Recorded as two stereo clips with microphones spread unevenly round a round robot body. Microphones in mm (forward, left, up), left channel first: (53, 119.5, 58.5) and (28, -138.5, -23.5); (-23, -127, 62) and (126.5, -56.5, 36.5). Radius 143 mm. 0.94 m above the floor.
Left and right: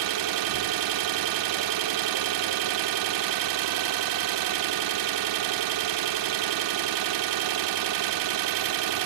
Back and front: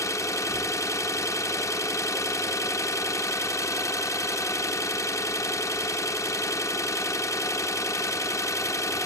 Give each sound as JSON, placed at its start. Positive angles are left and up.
{"t": 0.0, "sound": "an engine running", "azimuth_deg": -90, "distance_m": 0.8}